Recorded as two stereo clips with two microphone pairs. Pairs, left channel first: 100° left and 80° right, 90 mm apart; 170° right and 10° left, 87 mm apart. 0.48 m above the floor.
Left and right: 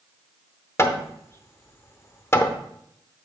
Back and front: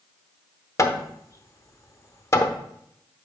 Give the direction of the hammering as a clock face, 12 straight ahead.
7 o'clock.